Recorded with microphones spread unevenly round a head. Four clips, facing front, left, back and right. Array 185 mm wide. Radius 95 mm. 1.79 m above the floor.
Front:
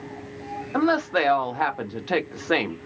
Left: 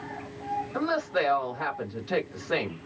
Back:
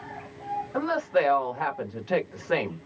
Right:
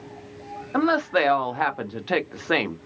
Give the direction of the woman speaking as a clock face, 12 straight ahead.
2 o'clock.